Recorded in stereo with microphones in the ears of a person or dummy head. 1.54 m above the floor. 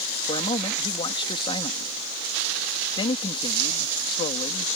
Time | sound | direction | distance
0.3 | a man speaking | 30° left (ahead or behind) | ?